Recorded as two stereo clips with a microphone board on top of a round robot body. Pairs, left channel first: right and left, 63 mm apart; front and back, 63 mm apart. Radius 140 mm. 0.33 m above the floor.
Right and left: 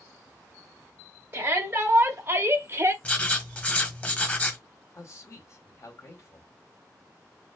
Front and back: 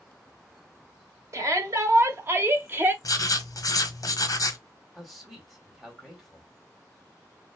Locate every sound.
1.3 s a shout: 140° left, 2.0 m; by 2.9 s 130° left, 1.2 m
3.0 s writing: 25° right, 1.2 m
4.9 s a man speaking: 90° right, 1.9 m